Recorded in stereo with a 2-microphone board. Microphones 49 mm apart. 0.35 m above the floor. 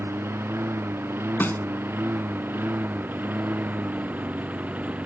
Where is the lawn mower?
60° right (ahead or behind); by 5.1 s 35° right (ahead or behind).